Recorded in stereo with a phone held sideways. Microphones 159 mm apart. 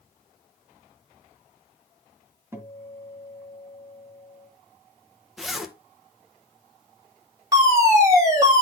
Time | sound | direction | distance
2.5 | a guitar | 15° right (ahead or behind) | 1.9 m
5.4 | a zipper | centre (ahead or behind) | 0.9 m
7.5 | a fire alarm | 20° right (ahead or behind) | 3.5 m